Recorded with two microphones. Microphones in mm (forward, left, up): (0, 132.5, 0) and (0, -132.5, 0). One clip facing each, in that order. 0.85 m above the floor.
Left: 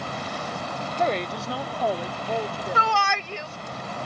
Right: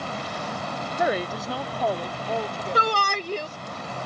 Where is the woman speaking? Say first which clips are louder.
Right 1 dB; 15° right (ahead or behind); by 3.8 s 10° left (ahead or behind).